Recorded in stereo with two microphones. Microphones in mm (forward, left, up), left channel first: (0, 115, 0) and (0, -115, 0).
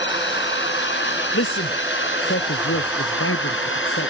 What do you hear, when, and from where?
0.0 s a drone: 55° left (ahead or behind); by 4.1 s 60° left (ahead or behind)
1.3 s a man speaking: 65° left (ahead or behind)